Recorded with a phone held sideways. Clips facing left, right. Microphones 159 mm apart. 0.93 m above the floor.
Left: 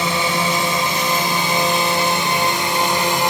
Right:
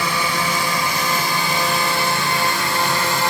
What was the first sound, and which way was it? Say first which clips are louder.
A drone: left 2 dB; 20° left (ahead or behind).